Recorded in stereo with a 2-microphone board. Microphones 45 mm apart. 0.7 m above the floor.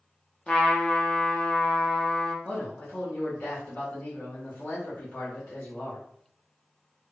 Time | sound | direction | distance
0.5 | a trumpet | 20° left (ahead or behind) | 0.7 m
2.5 | a man speaking | 45° left (ahead or behind) | 2 m